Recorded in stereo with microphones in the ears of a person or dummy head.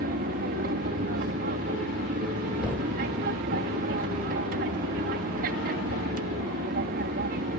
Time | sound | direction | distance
0.0 | an aircraft | 50° right (ahead or behind) | ?
2.6 | a thud | 5° right (ahead or behind) | ?